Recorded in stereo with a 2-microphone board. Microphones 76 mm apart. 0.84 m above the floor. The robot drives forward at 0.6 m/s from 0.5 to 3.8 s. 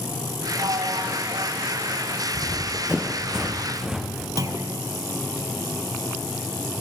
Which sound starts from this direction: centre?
Running footsteps, at 2.3 s.